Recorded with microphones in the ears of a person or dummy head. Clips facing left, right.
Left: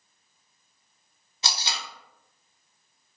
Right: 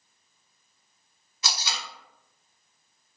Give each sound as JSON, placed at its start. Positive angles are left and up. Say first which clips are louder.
{"t": 1.4, "sound": "tape being pulled", "louder": "left 1 dB", "side_deg": 25, "distance_m": 0.9}